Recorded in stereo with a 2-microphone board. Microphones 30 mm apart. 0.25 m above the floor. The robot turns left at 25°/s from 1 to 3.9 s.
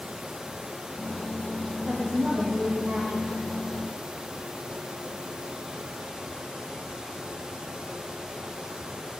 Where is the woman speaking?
30° right, 7 m; by 3.4 s 70° right, 7 m.